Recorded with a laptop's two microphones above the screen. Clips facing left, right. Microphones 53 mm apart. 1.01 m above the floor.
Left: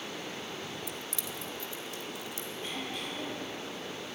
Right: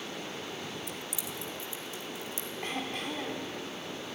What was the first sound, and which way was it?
Keys jangling, centre (ahead or behind).